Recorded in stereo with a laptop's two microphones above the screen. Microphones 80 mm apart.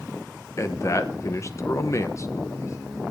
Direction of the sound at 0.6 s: 40° left (ahead or behind).